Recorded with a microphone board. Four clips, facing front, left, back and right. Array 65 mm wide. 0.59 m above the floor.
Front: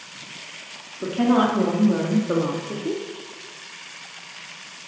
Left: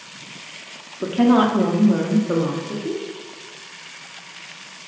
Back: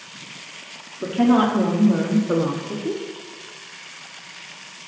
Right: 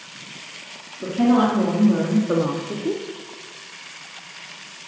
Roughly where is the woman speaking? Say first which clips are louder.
Left 2 dB, back 2 dB; left.